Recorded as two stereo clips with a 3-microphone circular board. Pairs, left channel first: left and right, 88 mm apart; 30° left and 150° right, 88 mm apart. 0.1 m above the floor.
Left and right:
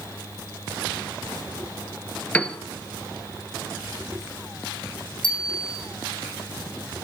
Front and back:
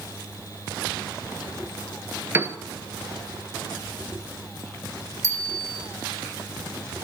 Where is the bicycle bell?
85° left, 3.5 m.